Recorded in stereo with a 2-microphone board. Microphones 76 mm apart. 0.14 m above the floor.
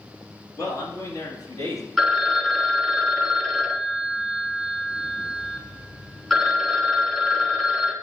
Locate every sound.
0.6 s a man speaking: 45° left (ahead or behind), 1.8 m; by 1.9 s 55° left (ahead or behind), 2.5 m
2.0 s a phone ringing: centre (ahead or behind), 0.7 m